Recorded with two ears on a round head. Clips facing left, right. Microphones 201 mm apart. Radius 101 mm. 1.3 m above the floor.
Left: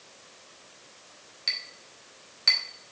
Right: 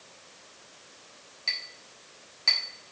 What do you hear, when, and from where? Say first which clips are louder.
1.5 s a clink: even; 20° left (ahead or behind), 1.8 m